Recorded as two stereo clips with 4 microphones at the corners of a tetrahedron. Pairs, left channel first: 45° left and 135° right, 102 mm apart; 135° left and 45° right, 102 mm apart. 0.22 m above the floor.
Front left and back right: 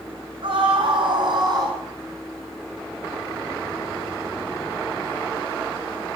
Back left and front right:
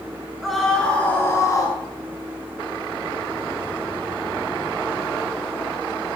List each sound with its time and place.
0.4 s a scream: 130° right, 2.0 m; by 1.8 s straight behind, 2 m